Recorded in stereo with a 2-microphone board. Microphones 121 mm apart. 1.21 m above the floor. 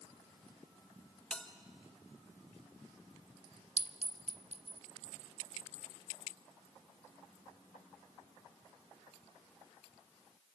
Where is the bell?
10° left (ahead or behind), 1.4 m.